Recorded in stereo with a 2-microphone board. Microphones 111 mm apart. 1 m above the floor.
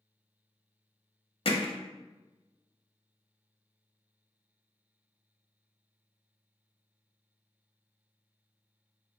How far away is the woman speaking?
I don't hear a woman speaking.